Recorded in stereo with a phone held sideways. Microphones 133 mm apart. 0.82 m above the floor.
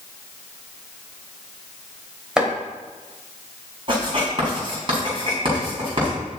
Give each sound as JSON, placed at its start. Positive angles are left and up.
{"t": 2.4, "sound": "chopping", "side_deg": -5, "distance_m": 2.0}
{"t": 3.9, "sound": "writing", "side_deg": -40, "distance_m": 4.0}